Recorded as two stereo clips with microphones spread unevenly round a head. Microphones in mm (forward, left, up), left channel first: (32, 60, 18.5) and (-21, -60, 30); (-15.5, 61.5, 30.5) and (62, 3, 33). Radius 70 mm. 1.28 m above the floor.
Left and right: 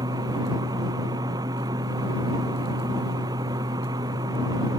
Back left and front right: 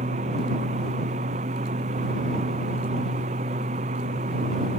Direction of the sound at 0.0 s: 50° right.